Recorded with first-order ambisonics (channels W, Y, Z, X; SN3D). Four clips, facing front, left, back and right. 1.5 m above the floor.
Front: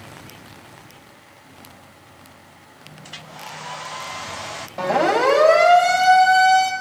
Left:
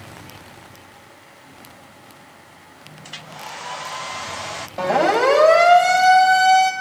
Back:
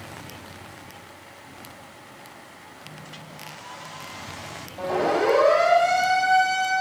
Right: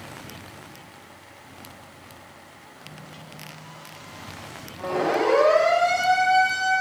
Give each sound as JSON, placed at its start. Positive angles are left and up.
{"t": 3.0, "sound": "a hair dryer", "azimuth_deg": 60, "distance_m": 0.7}
{"t": 4.8, "sound": "a siren", "azimuth_deg": 60, "distance_m": 7.5}